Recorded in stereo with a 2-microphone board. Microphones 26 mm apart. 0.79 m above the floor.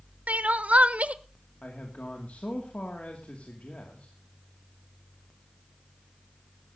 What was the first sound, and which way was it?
Crying, 60° right (ahead or behind).